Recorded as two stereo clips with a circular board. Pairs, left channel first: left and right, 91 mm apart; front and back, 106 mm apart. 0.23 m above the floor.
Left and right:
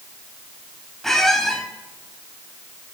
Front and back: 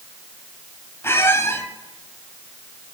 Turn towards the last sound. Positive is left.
turn(degrees=10)